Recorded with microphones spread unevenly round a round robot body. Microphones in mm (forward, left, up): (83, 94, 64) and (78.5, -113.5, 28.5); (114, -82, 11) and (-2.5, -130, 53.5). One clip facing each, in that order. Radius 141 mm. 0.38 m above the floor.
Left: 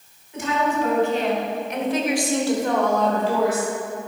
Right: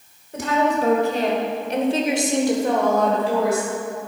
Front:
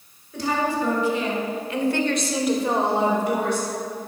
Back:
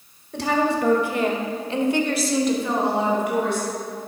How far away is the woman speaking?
About 2 m.